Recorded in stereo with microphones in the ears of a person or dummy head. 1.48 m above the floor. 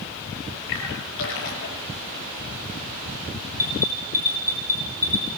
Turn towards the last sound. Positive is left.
turn(degrees=15)  # may be behind; listen again after turning